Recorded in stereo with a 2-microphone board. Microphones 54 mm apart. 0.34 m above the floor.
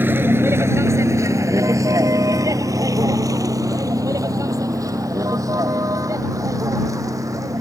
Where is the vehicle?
35° right (ahead or behind); by 7.6 s 70° right (ahead or behind).